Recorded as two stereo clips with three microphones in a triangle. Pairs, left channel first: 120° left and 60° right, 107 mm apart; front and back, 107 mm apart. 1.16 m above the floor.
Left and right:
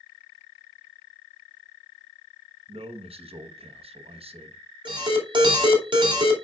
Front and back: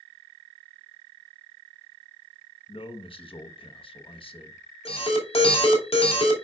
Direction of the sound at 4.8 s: 20° right.